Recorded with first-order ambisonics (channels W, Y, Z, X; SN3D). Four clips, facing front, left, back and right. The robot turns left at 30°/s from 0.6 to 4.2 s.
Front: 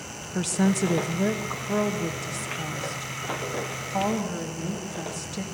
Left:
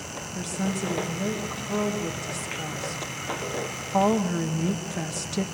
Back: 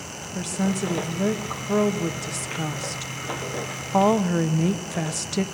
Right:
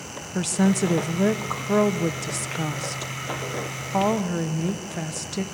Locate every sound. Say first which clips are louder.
0.3 s a woman speaking: right 8 dB, front 2 dB; 65° right, 0.7 m; by 5.5 s 175° right, 0.7 m